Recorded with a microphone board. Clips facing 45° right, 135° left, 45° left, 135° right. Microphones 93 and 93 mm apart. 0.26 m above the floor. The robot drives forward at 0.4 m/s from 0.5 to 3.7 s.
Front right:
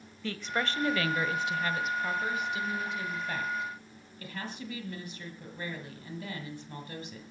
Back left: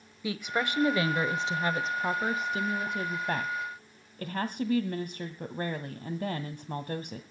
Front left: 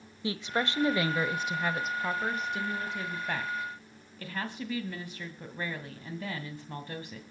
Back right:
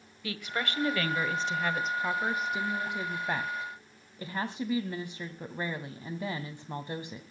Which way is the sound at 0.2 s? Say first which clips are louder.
Back left 2 dB, front left 3 dB; 70° left.